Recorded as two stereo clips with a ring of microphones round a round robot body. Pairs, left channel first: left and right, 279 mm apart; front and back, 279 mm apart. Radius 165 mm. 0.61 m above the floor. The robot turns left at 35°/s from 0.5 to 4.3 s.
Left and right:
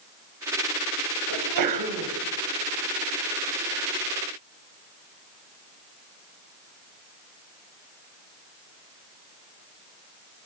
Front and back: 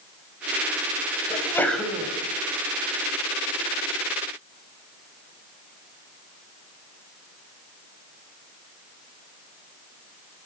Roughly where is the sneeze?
Right.